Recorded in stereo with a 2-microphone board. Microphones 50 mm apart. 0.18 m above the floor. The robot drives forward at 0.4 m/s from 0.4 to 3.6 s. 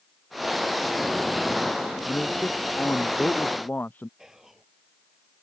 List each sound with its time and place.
2.1 s a man speaking: 35° left (ahead or behind)
4.2 s whispering: 10° right (ahead or behind)